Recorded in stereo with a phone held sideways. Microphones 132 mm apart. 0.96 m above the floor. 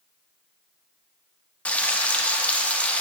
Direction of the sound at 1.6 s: 10° left (ahead or behind).